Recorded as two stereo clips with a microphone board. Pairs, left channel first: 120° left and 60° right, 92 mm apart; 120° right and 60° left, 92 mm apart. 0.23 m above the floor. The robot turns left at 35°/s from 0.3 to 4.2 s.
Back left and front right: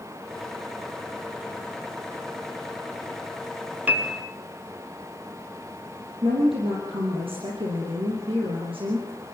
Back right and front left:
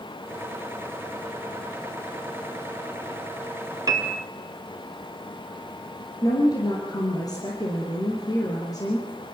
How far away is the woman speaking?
About 5.5 m.